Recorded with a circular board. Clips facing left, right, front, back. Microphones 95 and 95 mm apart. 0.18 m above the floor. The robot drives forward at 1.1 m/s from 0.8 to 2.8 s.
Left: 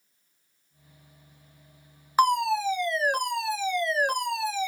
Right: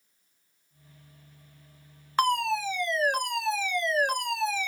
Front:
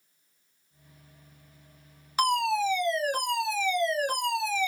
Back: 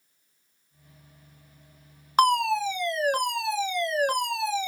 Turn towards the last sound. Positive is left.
turn(degrees=170)